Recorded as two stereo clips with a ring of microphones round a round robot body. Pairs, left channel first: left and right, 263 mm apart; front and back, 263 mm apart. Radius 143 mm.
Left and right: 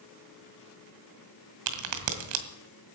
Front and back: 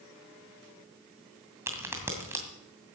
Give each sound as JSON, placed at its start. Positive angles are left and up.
{"t": 1.7, "sound": "a crack", "azimuth_deg": -100, "distance_m": 2.0}